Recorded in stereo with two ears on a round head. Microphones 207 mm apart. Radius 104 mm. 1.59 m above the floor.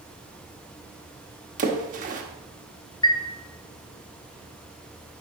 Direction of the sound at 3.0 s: 20° left (ahead or behind).